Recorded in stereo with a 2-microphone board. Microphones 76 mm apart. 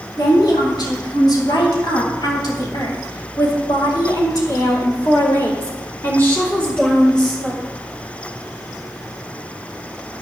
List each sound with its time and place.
0.2 s a woman speaking: 60° left (ahead or behind), 4 m; by 7.6 s centre (ahead or behind), 1.9 m